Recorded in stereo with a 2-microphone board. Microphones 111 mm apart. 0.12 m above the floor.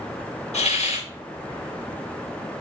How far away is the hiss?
About 2.5 m.